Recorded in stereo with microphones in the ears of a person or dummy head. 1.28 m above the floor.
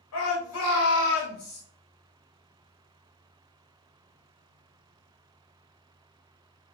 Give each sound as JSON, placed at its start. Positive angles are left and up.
{"t": 0.1, "sound": "a shout", "side_deg": 80, "distance_m": 2.0}